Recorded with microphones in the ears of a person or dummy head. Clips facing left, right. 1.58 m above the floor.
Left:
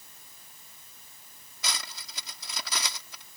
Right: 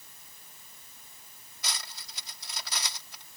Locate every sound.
1.6 s cutlery clinking: 70° left (ahead or behind)